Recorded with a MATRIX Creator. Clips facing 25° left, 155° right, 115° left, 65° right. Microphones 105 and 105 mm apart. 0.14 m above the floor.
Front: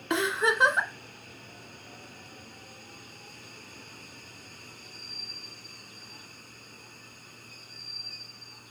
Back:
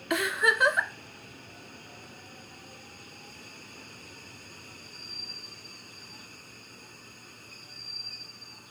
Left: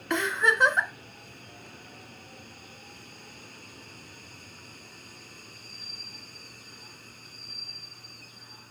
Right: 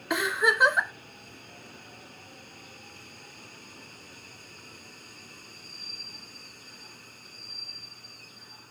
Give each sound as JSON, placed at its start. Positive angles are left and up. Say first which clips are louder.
{"t": 0.1, "sound": "a giggle", "louder": "front 1 dB, even", "azimuth_deg": 5, "distance_m": 1.1}